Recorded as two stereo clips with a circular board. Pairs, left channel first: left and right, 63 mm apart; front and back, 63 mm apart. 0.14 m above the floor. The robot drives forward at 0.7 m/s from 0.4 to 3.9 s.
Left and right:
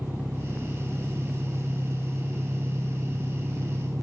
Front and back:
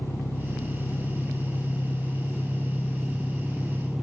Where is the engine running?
40° right, 3 m; by 4.0 s 95° right, 2.0 m.